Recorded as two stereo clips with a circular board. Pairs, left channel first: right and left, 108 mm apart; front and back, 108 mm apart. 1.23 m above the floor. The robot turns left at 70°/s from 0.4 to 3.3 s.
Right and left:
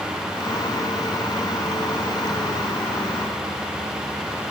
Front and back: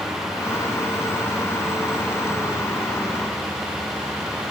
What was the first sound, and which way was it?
Only background noise.